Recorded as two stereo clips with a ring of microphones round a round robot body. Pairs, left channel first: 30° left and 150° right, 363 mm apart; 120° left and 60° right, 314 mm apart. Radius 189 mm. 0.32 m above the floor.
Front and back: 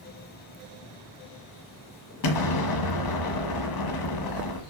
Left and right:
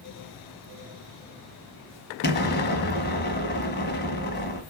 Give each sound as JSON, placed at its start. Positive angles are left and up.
{"t": 2.2, "sound": "an explosion", "azimuth_deg": 60, "distance_m": 1.4}